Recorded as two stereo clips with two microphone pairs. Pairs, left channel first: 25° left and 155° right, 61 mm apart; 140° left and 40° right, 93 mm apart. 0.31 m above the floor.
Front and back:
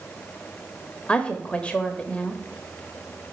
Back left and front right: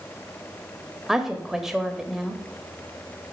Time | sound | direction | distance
1.1 | a woman speaking | 35° left | 1.0 m